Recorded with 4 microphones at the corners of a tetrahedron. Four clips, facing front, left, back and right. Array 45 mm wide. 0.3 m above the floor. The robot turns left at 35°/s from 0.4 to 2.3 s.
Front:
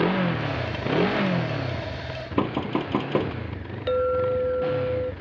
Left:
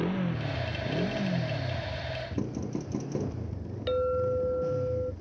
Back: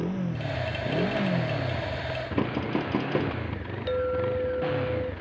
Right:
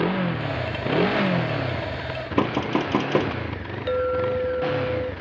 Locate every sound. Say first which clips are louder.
0.0 s a motorcycle: right 7 dB, front 8 dB; 35° right; by 5.2 s 100° right
2.4 s knocking: right 15 dB, front 4 dB; 75° right
3.9 s a clink: right 4 dB, front 4 dB; 40° right